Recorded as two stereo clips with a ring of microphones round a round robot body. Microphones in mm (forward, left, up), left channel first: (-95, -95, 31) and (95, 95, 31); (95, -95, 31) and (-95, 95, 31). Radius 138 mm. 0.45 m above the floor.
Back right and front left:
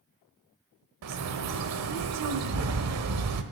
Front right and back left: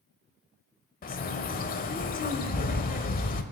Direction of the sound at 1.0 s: 15° left.